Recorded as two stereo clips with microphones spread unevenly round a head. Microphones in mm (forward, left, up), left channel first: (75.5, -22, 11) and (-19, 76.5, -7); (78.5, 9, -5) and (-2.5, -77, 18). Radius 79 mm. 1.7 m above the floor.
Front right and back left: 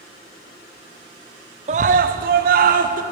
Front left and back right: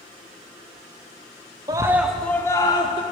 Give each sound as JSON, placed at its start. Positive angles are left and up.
{"t": 1.7, "sound": "a scream", "azimuth_deg": 180, "distance_m": 0.6}